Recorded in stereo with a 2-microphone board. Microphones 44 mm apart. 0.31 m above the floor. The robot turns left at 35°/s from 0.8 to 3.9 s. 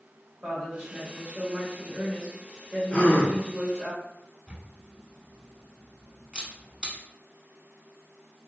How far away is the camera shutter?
About 0.6 m.